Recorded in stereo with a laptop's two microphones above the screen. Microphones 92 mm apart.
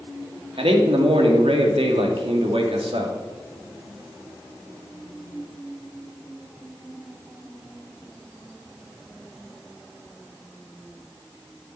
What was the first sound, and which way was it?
A man speaking, 80° right.